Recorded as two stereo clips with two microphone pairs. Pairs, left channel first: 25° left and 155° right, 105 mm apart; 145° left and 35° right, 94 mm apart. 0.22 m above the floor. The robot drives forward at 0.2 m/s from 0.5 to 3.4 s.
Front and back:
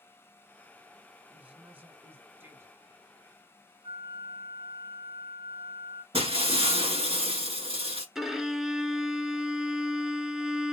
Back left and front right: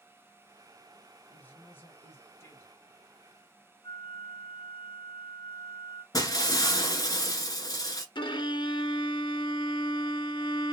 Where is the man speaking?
155° left, 1.0 m; by 2.8 s 165° left, 1.1 m.